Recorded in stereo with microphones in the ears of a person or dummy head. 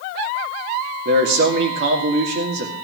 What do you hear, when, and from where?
1.1 s a man speaking: 65° right (ahead or behind), 2 m